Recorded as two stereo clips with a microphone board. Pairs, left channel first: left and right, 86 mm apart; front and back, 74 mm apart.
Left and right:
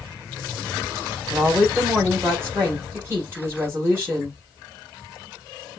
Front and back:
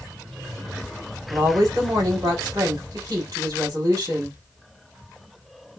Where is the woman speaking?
150° right, 4 m.